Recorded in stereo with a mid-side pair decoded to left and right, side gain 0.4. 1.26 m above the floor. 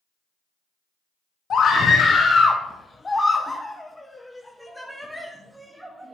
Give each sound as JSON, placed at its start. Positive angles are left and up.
{"t": 1.5, "sound": "a scream", "azimuth_deg": 60, "distance_m": 1.6}